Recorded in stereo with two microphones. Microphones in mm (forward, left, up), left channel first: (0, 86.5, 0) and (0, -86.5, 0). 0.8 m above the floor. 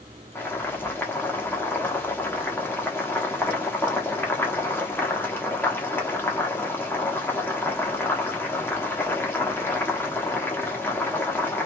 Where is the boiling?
15° left (ahead or behind), 1.2 m.